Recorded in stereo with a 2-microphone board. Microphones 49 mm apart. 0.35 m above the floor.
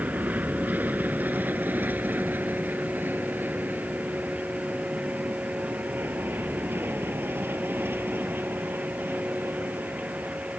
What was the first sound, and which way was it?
An aircraft, 35° right (ahead or behind).